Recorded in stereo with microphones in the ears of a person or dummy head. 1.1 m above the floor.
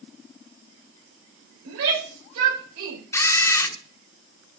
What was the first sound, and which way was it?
A shout, 65° right (ahead or behind).